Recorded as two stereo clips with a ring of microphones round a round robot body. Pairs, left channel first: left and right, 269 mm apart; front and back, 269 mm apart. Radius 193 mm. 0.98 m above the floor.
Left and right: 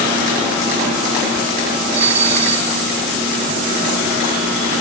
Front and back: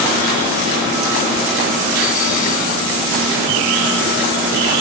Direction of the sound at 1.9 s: 70° right.